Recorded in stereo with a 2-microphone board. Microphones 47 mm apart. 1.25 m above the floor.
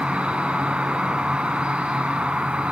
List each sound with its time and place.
0.0 s an insect: 30° right (ahead or behind), 1.5 m